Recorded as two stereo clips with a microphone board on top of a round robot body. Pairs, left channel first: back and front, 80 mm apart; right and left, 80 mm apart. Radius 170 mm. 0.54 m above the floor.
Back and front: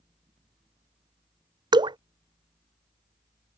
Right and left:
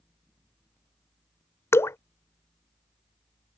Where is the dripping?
30° right.